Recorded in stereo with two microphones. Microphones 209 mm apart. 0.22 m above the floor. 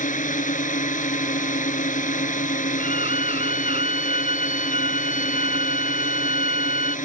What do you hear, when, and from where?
0.0 s a drone: 40° left (ahead or behind)
2.8 s a violin: 30° right (ahead or behind)